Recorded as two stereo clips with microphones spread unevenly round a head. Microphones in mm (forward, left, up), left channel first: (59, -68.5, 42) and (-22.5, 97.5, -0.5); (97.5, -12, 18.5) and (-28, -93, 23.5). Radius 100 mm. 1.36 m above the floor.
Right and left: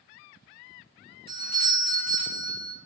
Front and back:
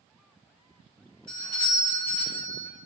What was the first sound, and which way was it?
A doorbell, 120° left.